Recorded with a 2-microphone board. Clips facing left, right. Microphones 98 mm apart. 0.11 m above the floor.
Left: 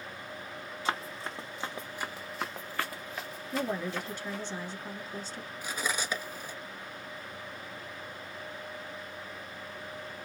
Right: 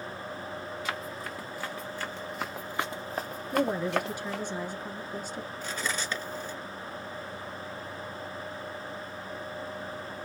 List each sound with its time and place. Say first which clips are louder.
0.8 s running footsteps: left 5 dB; 35° left (ahead or behind), 1.3 m; by 4.4 s 85° right, 1.0 m
3.5 s a woman speaking: right 6 dB; 10° right (ahead or behind), 1.2 m
5.6 s cutlery clinking: left 1 dB; 10° left (ahead or behind), 0.7 m